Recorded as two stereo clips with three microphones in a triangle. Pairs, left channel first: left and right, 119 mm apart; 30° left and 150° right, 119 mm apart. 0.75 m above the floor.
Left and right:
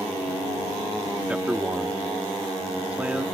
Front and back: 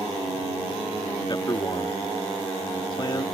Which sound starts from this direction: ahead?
A man speaking, at 1.3 s.